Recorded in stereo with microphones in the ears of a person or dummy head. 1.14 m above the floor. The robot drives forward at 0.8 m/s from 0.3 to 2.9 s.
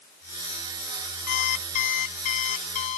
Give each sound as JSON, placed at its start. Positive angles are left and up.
{"t": 1.3, "sound": "an alarm clock", "side_deg": 45}